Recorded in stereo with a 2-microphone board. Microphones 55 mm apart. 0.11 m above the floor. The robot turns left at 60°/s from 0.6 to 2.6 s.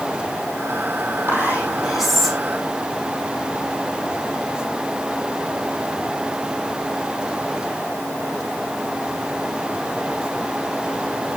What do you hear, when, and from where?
1.3 s whispering: 130° right, 4.5 m; by 2.4 s 165° left, 4.5 m